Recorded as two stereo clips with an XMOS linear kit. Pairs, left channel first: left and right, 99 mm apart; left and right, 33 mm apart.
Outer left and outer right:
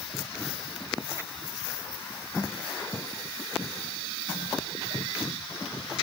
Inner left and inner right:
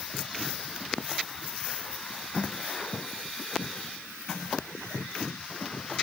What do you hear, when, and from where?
Only background noise.